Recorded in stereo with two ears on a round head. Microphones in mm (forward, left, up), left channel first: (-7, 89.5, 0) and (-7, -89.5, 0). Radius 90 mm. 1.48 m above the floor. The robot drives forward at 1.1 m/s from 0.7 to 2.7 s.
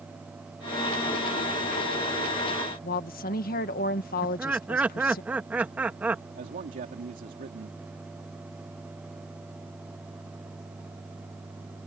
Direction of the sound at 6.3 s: 45° right (ahead or behind).